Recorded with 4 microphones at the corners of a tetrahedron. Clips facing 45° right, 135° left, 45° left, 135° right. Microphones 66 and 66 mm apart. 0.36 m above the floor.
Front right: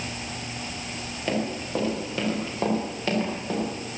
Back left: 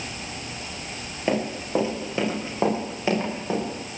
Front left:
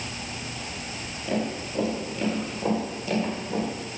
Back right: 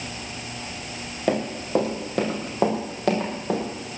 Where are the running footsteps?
160° right, 5 m; by 3.6 s 150° right, 6.5 m.